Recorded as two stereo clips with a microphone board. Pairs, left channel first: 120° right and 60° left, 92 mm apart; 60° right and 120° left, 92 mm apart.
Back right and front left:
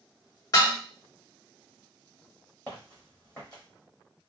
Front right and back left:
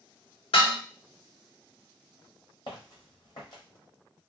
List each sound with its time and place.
0.5 s dishes clattering: 70° right, 1.3 m
2.7 s footsteps: 45° right, 1.5 m